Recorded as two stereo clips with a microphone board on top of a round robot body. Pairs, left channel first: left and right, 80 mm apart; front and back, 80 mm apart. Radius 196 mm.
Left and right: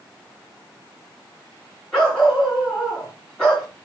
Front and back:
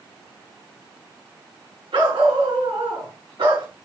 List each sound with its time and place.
1.9 s a dog barking: 175° left, 4 m